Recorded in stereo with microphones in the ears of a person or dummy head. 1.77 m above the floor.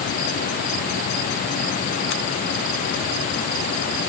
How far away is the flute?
I don't hear a flute.